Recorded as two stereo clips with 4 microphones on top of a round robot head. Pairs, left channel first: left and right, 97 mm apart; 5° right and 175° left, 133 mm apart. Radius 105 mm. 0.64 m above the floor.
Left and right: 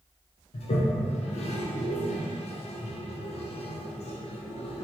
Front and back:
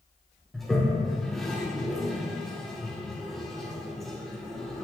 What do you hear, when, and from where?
0.5 s a toilet flushing: 85° left, 0.5 m